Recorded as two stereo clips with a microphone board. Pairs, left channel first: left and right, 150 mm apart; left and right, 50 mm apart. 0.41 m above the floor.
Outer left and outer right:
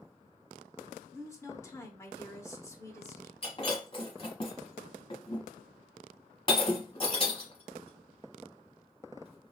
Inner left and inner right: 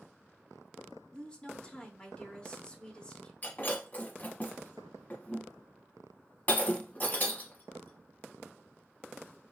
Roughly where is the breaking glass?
Left.